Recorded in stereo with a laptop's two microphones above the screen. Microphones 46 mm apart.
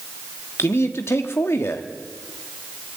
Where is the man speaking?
70° left (ahead or behind), 1.6 m.